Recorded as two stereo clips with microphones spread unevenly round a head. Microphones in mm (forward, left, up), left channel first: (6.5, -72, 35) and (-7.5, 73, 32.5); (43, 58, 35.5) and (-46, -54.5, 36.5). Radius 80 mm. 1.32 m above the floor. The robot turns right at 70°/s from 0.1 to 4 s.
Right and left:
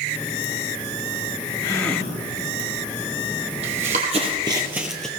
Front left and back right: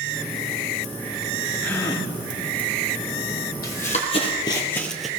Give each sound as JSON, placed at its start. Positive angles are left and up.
{"t": 1.6, "sound": "a gasp", "azimuth_deg": -25, "distance_m": 1.1}
{"t": 3.6, "sound": "running footsteps", "azimuth_deg": 55, "distance_m": 2.0}